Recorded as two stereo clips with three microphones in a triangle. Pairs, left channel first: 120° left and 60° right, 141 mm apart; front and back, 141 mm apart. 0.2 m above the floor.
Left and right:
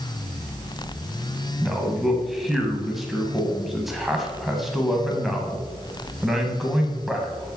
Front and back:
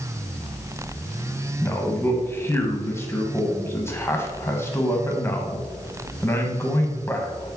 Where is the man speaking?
25° left, 1.0 m.